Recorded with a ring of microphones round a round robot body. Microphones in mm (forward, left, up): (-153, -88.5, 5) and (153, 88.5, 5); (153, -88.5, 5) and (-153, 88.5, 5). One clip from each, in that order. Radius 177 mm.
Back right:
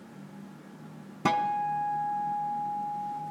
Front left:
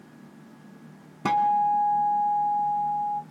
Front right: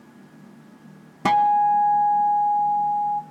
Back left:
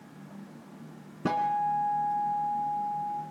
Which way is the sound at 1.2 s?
60° right.